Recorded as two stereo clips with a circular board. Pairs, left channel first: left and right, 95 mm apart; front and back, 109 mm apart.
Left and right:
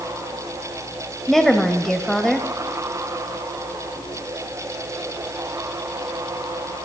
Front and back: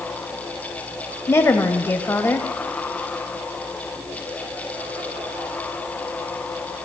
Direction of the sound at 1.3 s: 10° left.